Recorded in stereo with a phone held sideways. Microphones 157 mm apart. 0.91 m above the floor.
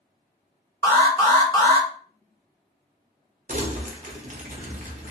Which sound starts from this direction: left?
An alarm, at 0.8 s.